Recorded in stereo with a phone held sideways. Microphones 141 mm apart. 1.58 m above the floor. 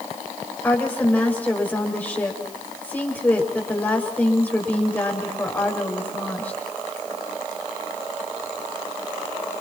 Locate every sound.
0.6 s a woman speaking: 15° left (ahead or behind), 7 m